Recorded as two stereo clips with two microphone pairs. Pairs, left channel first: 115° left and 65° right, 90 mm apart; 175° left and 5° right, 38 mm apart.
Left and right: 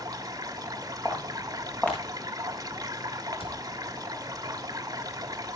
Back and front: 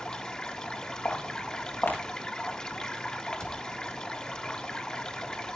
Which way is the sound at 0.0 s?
115° right.